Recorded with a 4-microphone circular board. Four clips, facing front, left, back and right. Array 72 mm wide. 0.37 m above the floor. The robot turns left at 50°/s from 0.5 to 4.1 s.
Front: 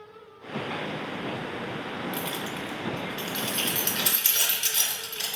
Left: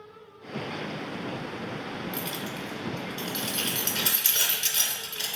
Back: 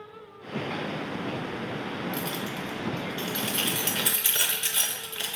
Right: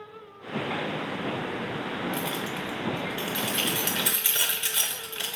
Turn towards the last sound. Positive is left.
turn(degrees=-135)